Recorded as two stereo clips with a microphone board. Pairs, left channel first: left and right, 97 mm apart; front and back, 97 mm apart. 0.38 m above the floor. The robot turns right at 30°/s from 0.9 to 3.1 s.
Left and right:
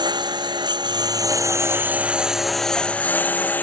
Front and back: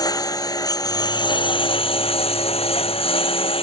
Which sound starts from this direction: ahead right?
A lawn mower, at 0.0 s.